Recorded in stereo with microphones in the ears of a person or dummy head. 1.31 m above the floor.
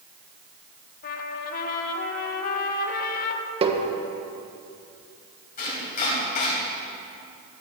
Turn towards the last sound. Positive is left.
turn(degrees=50)  # may be behind; listen again after turning